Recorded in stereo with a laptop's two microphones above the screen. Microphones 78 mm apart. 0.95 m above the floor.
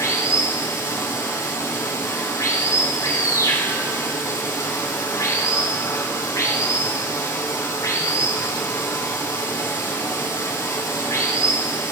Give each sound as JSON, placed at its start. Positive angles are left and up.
{"t": 0.0, "sound": "running water", "side_deg": 45, "distance_m": 4.0}